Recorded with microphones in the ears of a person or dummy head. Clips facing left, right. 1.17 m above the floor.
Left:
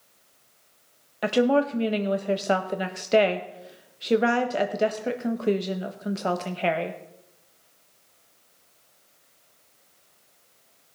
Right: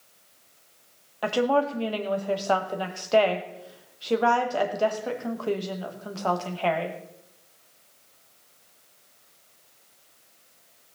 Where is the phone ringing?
No phone ringing in this recording.